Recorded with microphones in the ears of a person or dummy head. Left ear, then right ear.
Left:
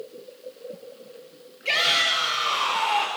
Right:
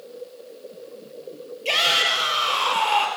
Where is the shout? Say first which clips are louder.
Right 2 dB; 10° right (ahead or behind), 5 m.